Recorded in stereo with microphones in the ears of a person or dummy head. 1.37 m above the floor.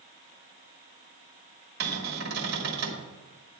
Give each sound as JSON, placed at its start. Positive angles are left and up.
{"t": 1.8, "sound": "a cupboard door", "side_deg": -60, "distance_m": 1.5}